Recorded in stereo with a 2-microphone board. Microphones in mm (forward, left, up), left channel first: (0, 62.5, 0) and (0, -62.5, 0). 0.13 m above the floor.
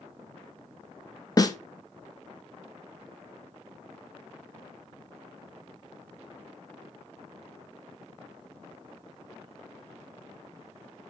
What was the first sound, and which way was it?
A snare drum, 30° left (ahead or behind).